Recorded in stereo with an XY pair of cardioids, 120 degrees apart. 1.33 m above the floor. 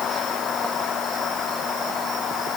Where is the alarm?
No alarm in this recording.